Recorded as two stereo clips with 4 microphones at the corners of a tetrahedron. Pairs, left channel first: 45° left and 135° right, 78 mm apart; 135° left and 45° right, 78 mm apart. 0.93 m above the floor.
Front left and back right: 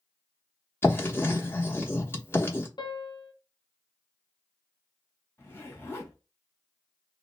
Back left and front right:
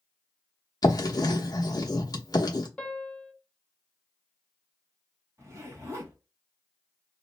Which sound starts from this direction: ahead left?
A piano, at 2.8 s.